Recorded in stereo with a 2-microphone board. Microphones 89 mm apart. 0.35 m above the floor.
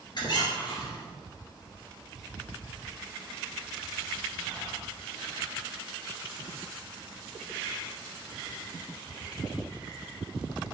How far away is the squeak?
About 2 m.